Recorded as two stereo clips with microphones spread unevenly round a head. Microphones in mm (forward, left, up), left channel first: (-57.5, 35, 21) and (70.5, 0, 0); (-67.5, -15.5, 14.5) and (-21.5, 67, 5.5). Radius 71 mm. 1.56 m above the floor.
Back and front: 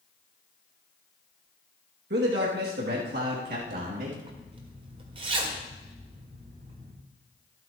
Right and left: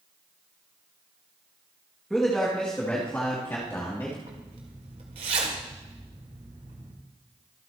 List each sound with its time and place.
2.1 s a man speaking: 30° right, 2 m; by 4.2 s 45° right, 3 m
4.2 s a zipper: 35° left, 2.0 m